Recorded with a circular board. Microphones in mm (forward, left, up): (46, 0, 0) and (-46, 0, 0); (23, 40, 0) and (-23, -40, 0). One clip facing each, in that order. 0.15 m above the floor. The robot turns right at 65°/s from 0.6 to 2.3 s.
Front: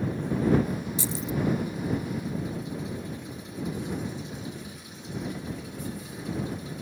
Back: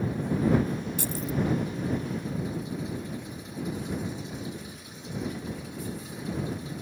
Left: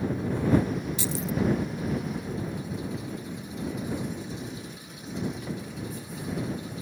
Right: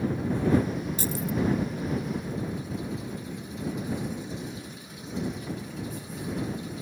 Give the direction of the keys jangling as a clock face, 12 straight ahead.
5 o'clock.